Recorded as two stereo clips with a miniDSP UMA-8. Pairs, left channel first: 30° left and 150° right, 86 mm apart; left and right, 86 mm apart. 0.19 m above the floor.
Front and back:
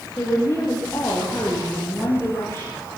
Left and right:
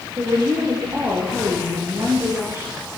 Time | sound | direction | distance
0.2 | a woman speaking | 30° right | 10 m